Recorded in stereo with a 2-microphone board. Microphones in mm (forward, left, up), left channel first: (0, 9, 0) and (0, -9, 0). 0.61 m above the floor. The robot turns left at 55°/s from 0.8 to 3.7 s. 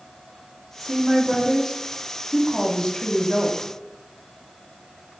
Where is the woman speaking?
145° right, 0.7 m; by 3.7 s 55° left, 0.7 m.